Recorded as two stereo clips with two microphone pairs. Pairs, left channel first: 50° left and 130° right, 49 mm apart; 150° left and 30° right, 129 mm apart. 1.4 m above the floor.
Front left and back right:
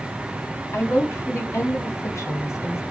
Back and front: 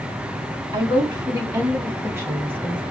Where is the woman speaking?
30° left, 2.5 m; by 2.8 s 55° left, 1.2 m.